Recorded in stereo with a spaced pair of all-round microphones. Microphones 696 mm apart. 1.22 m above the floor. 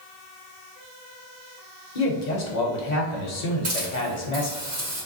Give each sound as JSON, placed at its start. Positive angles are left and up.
{"t": 1.9, "sound": "a man speaking", "side_deg": 75, "distance_m": 1.1}
{"t": 3.6, "sound": "a hiss", "side_deg": -85, "distance_m": 1.5}